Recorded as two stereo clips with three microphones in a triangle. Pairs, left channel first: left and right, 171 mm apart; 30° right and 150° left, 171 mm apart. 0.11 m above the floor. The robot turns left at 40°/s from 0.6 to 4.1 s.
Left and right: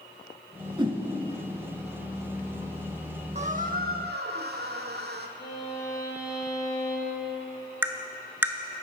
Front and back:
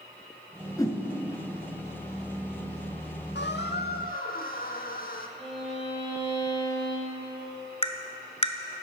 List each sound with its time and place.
0.8 s a whoosh: 75° right, 0.9 m; by 1.0 s 85° right, 0.9 m
3.4 s a squeak: 40° right, 0.7 m; by 5.3 s 70° right, 0.7 m
5.4 s a violin: 95° left, 3 m
7.8 s tapping: 20° right, 0.5 m